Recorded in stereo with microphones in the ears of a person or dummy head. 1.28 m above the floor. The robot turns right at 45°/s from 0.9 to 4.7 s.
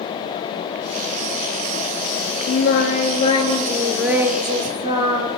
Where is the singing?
115° left, 4 m; by 5.3 s 145° right, 4 m.